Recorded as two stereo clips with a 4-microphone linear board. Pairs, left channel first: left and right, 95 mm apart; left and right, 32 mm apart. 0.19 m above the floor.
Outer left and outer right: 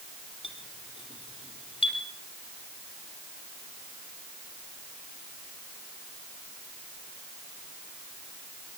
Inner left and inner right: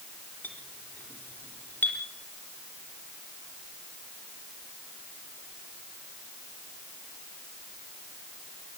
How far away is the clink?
About 4.5 m.